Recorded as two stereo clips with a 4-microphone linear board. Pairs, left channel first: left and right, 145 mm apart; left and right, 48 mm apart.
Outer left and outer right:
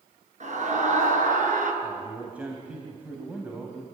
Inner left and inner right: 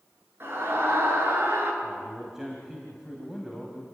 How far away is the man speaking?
About 3 m.